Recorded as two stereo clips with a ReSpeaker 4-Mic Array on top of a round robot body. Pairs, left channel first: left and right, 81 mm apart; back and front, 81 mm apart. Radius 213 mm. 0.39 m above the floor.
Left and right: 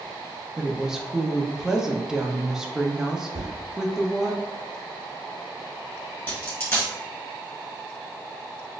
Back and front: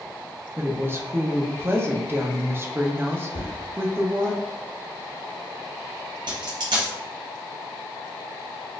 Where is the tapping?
155° right, 1.5 m.